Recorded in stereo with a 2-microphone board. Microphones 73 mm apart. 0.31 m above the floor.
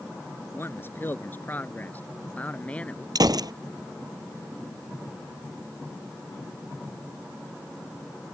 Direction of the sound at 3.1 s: 70° right (ahead or behind).